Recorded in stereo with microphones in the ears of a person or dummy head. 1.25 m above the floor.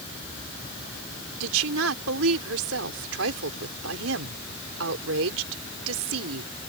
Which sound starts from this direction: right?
A woman speaking, at 1.4 s.